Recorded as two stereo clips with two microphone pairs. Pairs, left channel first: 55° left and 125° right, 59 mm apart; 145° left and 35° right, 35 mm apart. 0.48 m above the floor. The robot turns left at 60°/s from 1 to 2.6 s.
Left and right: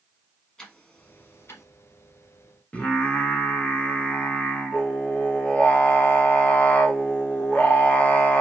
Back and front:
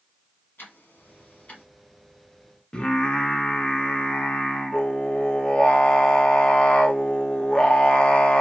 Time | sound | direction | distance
0.6 | ticking | 130° left | 1.3 m
2.7 | singing | 100° left | 0.9 m